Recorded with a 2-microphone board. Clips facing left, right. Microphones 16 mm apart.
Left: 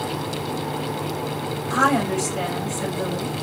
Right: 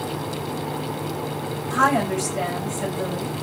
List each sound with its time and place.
1.7 s a woman speaking: 40° left (ahead or behind), 3 m